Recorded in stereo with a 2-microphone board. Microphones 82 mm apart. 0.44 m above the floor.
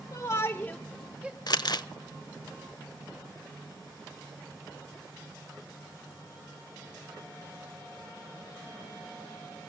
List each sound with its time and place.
0.1 s a shout: 45° left (ahead or behind), 1.6 m; by 1.4 s 25° right (ahead or behind), 1.1 m
1.5 s crumpling: 60° left (ahead or behind), 0.6 m